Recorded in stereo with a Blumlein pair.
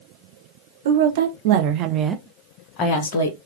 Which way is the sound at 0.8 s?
60° right.